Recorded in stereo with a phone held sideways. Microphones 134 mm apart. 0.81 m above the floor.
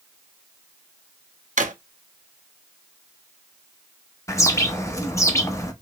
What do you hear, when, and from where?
1.6 s a drawer: 75° right (ahead or behind), 0.5 m
4.3 s a bird: 20° left (ahead or behind), 0.6 m